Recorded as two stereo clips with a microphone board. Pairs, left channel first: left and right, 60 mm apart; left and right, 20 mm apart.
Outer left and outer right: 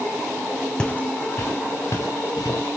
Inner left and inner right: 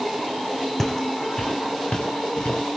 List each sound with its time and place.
0.8 s footsteps: 10° left (ahead or behind), 1.1 m; by 2.7 s 70° left (ahead or behind), 3 m